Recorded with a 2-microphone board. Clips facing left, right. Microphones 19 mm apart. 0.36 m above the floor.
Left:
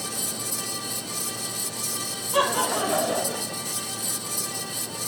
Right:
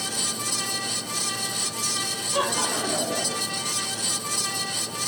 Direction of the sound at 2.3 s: 20° left (ahead or behind).